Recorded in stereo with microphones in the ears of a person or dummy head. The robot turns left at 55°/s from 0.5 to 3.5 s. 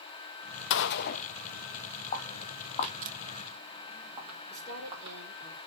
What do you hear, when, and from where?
0.7 s a gunshot: 65° left (ahead or behind), 0.5 m; by 3.1 s 45° right (ahead or behind), 0.5 m
2.1 s footsteps: 35° left (ahead or behind), 1.6 m; by 5.2 s 25° right (ahead or behind), 4 m
4.5 s a woman speaking: 15° right (ahead or behind), 4 m